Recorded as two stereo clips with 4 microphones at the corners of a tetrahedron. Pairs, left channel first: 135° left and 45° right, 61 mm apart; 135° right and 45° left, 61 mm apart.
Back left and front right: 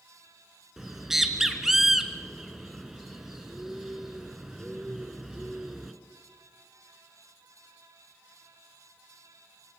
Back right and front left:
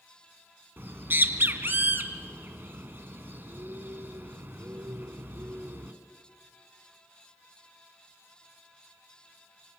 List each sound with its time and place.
0.8 s a bird: 35° left, 1.8 m